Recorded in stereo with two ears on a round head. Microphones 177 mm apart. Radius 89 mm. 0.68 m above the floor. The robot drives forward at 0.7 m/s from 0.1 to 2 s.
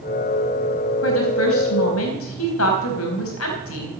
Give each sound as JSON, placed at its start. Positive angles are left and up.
{"t": 1.0, "sound": "a woman speaking", "side_deg": 75, "distance_m": 4.0}